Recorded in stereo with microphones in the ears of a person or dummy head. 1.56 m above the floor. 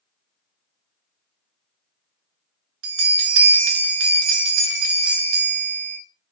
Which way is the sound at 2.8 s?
80° right.